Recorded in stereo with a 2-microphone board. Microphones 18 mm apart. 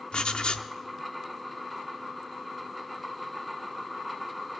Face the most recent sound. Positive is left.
turn(degrees=60)  # may be behind; listen again after turning